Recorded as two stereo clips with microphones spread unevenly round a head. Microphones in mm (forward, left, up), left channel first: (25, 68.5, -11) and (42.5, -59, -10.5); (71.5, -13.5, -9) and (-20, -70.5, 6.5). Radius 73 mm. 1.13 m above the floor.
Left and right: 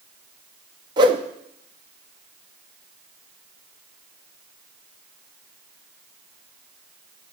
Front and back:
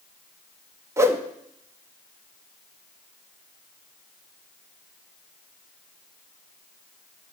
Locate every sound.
1.0 s a whoosh: 115° right, 0.5 m